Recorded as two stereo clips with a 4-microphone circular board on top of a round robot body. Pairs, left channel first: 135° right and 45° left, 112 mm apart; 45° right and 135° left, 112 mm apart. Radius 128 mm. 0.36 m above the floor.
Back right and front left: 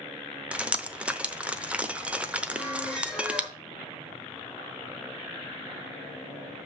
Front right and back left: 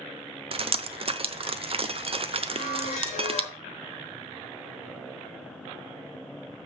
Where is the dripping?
125° left, 0.8 m.